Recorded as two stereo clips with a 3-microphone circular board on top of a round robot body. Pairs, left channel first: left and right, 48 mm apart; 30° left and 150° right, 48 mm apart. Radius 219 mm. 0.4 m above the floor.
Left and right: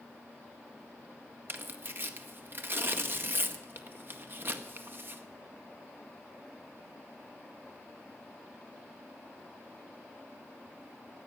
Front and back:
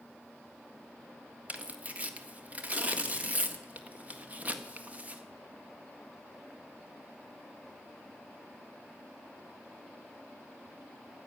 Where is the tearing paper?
105° right, 1.8 m.